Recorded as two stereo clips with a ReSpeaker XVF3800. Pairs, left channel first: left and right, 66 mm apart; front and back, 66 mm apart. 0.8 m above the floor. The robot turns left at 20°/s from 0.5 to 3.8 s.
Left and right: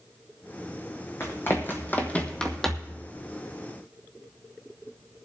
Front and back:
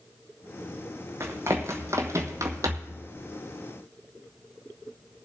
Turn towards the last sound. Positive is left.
turn(degrees=165)